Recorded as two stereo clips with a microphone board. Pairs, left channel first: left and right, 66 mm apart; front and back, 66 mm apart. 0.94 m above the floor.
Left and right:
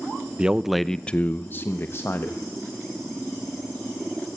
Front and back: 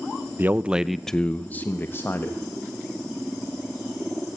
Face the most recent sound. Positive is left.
turn(degrees=40)